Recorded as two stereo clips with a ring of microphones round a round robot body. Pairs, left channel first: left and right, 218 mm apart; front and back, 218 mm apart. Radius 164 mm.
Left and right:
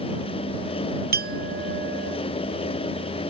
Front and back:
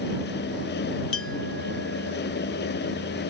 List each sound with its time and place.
1.1 s a clink: 45° right